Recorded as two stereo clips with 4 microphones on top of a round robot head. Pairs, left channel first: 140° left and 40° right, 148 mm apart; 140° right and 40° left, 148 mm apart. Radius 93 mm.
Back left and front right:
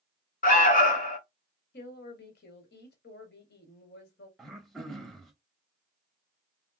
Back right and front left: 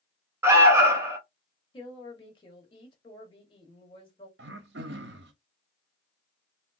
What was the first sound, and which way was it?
An alarm, 115° left.